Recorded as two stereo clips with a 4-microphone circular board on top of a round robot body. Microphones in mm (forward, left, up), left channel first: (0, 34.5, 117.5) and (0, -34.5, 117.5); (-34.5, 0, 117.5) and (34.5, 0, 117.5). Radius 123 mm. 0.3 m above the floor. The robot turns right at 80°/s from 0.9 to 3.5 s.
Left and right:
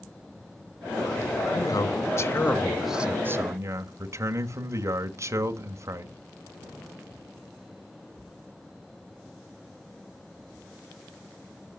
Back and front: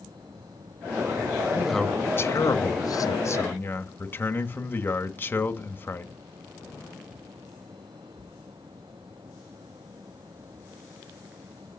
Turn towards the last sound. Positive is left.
turn(degrees=-125)